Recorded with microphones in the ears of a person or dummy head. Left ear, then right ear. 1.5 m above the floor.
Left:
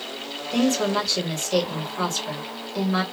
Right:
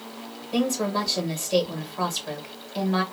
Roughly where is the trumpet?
No trumpet in this recording.